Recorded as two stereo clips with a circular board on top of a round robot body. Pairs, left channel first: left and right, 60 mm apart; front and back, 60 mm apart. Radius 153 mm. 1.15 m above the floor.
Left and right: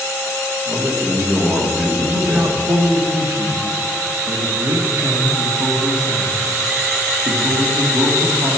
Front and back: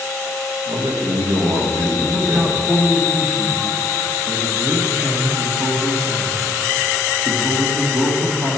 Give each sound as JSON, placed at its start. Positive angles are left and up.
{"t": 0.7, "sound": "a man speaking", "azimuth_deg": -155, "distance_m": 1.9}
{"t": 2.0, "sound": "a man speaking", "azimuth_deg": -120, "distance_m": 1.4}